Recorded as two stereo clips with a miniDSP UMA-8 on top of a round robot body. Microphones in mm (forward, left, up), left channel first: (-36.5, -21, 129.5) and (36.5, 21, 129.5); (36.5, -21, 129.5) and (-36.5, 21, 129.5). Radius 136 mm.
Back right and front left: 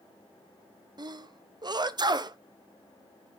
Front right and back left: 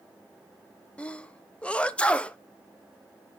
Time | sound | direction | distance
1.0 | a sneeze | 45° left | 0.9 m